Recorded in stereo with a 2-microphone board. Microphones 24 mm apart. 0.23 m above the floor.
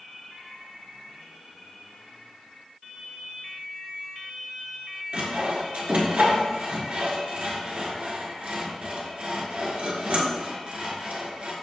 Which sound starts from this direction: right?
Sawing, at 5.1 s.